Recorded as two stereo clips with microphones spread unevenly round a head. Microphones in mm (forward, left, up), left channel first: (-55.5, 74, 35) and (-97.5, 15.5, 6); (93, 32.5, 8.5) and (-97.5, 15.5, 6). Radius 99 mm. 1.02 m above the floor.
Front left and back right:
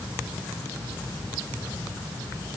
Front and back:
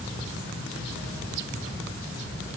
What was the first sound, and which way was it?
Only background noise.